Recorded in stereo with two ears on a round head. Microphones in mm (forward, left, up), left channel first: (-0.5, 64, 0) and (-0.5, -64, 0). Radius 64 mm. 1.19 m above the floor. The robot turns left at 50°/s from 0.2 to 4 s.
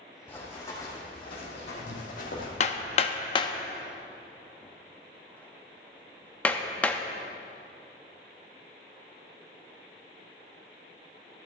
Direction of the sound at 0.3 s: 10° left (ahead or behind).